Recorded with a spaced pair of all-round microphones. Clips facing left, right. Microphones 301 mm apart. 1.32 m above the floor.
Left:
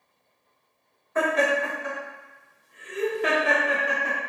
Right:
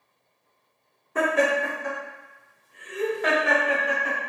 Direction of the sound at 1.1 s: 40° right (ahead or behind).